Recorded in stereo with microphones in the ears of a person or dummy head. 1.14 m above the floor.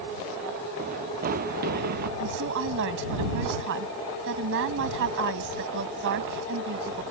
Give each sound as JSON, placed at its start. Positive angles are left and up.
{"t": 0.8, "sound": "running footsteps", "side_deg": -40}
{"t": 2.2, "sound": "a woman speaking", "side_deg": -65}